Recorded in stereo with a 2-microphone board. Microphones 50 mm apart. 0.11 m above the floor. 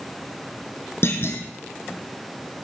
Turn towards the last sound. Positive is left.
turn(degrees=55)  # may be behind; listen again after turning